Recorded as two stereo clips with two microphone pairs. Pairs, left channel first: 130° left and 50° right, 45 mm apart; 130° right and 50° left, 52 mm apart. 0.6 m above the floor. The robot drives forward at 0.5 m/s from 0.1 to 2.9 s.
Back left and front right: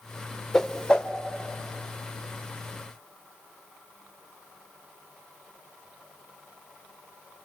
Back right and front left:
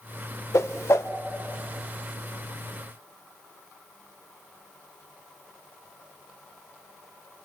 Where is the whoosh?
150° right, 0.6 m; by 1.1 s 160° right, 0.9 m.